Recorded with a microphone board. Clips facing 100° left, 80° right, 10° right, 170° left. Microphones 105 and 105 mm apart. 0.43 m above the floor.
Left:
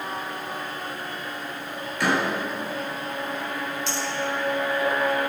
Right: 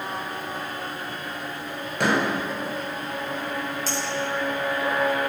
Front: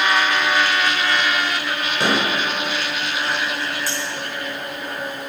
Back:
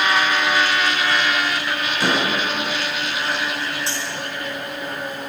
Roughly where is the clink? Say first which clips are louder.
Right 1 dB, front 1 dB; behind right.